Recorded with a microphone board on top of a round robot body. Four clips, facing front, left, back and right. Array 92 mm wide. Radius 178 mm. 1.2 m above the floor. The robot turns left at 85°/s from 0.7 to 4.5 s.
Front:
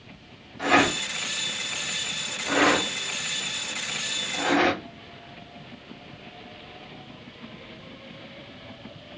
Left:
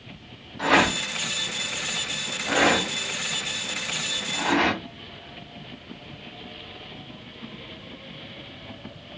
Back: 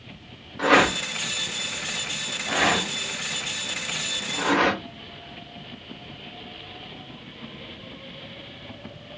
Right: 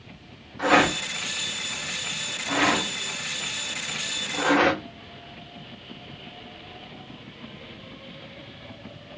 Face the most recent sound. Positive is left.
turn(degrees=-125)